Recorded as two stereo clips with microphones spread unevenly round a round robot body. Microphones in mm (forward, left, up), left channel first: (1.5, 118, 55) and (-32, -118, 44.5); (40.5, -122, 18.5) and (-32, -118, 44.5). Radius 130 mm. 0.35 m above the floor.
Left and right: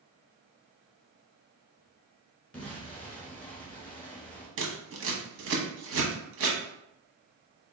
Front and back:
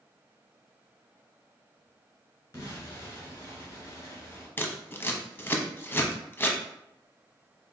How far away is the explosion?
About 1.6 m.